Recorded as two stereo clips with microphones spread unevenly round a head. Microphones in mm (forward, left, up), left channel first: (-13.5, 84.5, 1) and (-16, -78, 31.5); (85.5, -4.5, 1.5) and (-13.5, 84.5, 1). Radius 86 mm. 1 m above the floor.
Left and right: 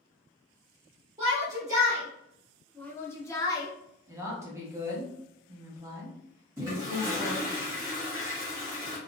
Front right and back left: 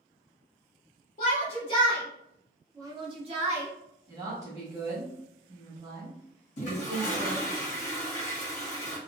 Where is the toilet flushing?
10° right, 1.1 m.